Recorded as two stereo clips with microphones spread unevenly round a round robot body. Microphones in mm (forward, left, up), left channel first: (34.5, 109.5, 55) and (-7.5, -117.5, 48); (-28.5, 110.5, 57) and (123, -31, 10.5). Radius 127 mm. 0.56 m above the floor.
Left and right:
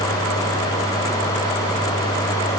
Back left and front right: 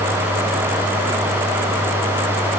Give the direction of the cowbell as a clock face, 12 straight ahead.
No cowbell in this recording.